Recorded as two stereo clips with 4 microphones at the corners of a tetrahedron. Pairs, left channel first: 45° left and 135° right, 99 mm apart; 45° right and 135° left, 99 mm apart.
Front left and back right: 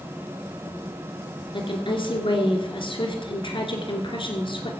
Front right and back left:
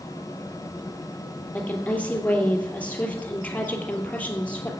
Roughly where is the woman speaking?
Ahead left.